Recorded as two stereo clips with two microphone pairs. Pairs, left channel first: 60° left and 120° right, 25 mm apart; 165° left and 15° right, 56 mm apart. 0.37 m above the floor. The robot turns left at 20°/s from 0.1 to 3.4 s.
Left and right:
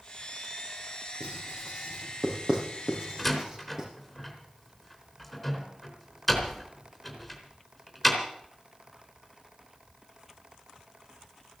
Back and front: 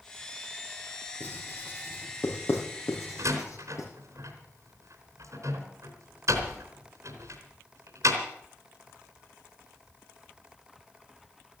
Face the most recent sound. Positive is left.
turn(degrees=-25)